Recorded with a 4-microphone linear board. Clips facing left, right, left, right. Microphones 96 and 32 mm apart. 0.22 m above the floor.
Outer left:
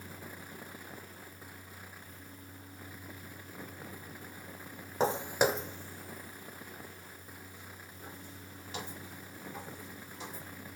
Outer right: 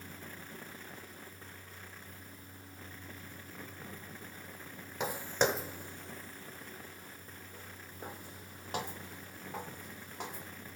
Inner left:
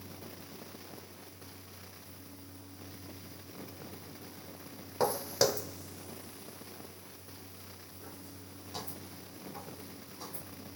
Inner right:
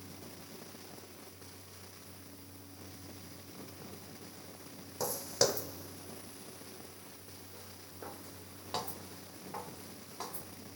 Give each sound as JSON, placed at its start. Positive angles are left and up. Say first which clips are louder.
{"t": 5.0, "sound": "footsteps", "louder": "outer left 3 dB, inner left 3 dB", "side_deg": 35, "distance_m": 0.6}